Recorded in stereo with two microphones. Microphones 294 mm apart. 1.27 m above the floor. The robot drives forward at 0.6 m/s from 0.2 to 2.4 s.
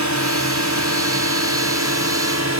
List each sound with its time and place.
0.0 s a drone: 75° right (ahead or behind); by 2.6 s 65° right (ahead or behind)